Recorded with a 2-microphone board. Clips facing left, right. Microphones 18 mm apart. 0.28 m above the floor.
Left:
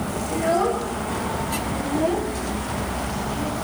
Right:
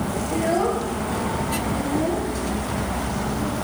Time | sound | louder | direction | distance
0.3 | a child speaking | left 1 dB | centre (ahead or behind) | 3 m